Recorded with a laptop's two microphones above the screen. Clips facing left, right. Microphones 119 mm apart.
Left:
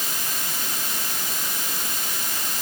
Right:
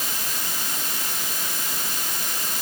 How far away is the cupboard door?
I don't hear a cupboard door.